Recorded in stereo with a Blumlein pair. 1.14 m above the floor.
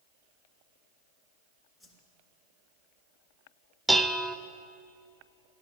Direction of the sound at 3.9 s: Straight ahead.